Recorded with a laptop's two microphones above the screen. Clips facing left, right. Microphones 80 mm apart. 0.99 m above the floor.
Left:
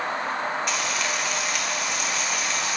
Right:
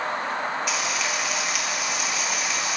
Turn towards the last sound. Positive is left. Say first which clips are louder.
# even
turn(degrees=-5)  # may be behind; listen again after turning